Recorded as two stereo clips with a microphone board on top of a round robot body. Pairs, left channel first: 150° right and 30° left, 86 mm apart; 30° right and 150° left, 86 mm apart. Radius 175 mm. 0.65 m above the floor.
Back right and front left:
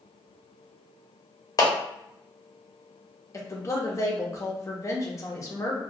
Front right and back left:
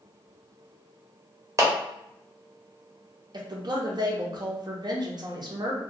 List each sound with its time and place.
1.6 s a clap: 170° right, 1.0 m
3.3 s a woman speaking: 165° left, 0.9 m